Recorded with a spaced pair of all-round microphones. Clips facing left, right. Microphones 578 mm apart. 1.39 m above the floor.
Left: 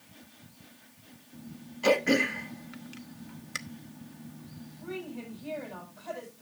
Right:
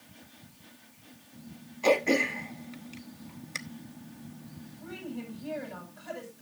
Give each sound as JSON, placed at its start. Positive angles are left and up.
{"t": 1.8, "sound": "throat clearing", "side_deg": 40, "distance_m": 0.9}
{"t": 4.8, "sound": "a woman speaking", "side_deg": -35, "distance_m": 8.0}